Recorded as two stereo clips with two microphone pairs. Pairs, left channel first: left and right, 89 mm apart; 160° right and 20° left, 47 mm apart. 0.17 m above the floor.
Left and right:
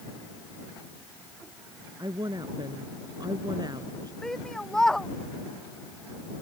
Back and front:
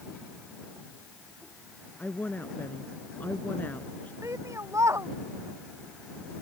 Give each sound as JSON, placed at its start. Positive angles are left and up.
{"t": 2.0, "sound": "a woman speaking", "azimuth_deg": -115}
{"t": 4.2, "sound": "a shout", "azimuth_deg": 5}